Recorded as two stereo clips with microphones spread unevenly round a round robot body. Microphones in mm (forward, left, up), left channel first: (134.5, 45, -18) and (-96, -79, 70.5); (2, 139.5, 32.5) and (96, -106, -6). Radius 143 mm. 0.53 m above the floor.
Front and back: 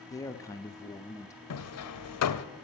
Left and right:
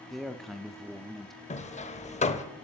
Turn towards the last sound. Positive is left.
turn(degrees=45)